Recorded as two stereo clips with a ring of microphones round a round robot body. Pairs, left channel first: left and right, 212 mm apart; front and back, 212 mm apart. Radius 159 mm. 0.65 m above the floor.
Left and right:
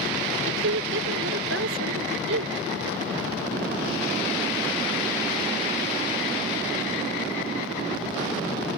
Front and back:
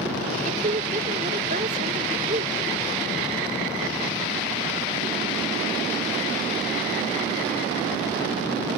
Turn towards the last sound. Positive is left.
turn(degrees=-120)